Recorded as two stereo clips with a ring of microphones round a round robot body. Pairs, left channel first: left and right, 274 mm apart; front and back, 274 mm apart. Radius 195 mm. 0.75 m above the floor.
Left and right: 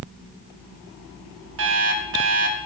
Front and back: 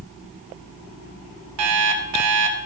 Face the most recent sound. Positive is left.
turn(degrees=-145)